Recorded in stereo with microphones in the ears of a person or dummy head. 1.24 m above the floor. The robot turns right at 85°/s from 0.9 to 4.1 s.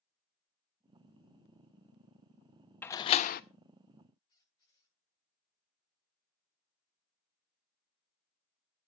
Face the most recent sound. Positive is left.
turn(degrees=25)  # may be behind; listen again after turning